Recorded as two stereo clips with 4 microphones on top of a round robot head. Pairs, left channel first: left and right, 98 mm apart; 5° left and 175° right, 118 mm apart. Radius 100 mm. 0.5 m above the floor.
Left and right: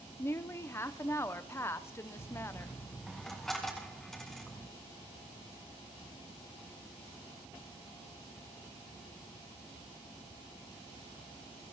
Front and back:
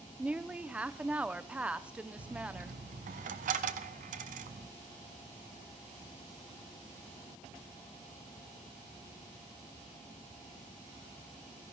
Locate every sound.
0.2 s a woman speaking: 115° left, 0.7 m
2.2 s a dropped coin: straight behind, 0.8 m